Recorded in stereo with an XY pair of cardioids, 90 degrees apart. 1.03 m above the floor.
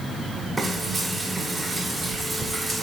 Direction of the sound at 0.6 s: 30° right.